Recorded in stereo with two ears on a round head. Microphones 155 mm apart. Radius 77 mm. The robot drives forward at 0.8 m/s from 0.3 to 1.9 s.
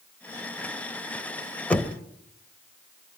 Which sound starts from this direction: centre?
Knocking, at 1.7 s.